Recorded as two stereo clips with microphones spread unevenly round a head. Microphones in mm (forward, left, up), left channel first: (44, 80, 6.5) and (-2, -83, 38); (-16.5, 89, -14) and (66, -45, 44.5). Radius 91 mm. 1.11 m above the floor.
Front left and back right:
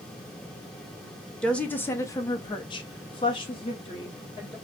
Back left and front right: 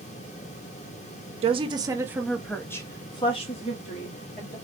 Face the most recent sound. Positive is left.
turn(degrees=130)